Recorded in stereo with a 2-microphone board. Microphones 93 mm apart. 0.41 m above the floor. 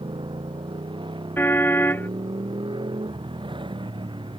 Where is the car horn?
20° left (ahead or behind).